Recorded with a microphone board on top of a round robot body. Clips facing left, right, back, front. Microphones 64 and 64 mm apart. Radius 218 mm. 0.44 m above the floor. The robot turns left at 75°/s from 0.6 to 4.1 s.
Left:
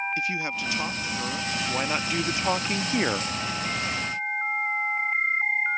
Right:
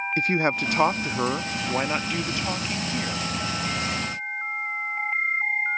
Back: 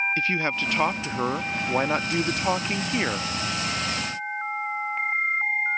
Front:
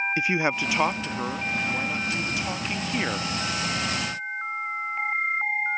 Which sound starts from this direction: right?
A man speaking, at 0.2 s.